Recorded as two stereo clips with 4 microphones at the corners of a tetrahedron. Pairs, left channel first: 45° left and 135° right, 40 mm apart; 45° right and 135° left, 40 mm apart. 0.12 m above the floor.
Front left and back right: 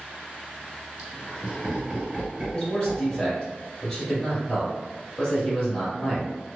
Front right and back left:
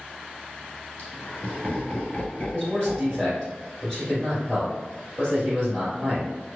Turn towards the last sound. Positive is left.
turn(degrees=15)